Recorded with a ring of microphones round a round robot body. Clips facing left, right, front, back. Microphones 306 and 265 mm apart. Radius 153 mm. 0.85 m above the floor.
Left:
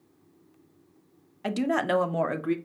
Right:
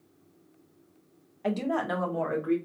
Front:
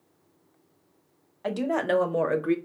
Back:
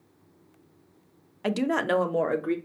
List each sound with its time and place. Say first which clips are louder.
1.4 s a woman speaking: left 2 dB, back 1 dB; 145° left, 0.6 m; by 2.5 s 75° left, 0.9 m